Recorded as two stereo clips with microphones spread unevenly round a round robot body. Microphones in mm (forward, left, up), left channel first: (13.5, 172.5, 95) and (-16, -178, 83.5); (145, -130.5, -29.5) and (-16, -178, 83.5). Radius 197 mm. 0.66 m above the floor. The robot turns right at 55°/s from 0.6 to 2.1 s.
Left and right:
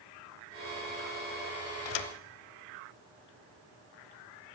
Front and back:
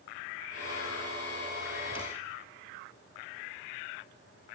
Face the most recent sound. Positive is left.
turn(degrees=110)